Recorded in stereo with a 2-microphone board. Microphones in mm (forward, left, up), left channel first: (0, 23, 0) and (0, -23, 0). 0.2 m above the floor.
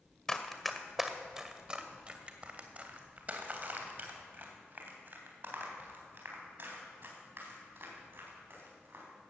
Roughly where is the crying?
No crying in this recording.